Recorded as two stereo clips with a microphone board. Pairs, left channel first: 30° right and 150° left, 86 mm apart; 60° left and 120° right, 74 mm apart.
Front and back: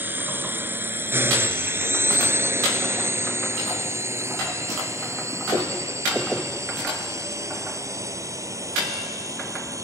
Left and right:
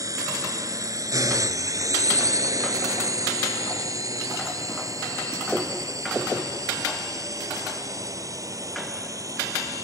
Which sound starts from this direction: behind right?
A drone, at 0.0 s.